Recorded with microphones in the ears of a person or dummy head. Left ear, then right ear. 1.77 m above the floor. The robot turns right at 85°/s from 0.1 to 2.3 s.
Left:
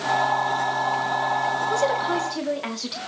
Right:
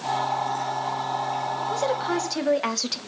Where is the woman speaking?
165° left, 0.9 m; by 3.0 s 145° right, 0.9 m.